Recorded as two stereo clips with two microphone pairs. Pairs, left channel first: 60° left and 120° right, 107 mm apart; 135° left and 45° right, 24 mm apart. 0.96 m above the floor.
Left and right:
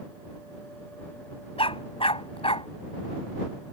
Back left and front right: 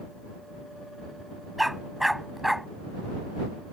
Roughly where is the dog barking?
Ahead left.